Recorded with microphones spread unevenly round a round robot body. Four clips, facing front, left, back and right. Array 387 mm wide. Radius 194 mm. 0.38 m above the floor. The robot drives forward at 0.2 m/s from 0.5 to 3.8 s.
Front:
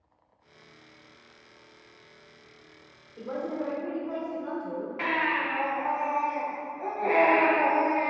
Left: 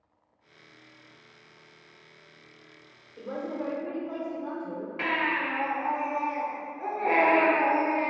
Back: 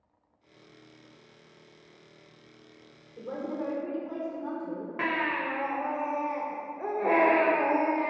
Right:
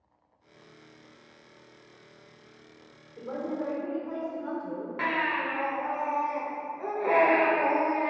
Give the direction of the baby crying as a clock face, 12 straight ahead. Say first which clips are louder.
Even, front 1 dB; 5 o'clock.